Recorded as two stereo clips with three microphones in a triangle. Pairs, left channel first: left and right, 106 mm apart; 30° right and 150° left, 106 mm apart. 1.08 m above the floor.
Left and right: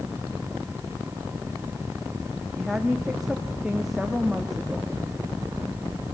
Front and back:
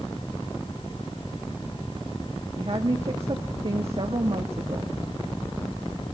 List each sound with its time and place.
2.6 s a woman speaking: 175° right, 1.9 m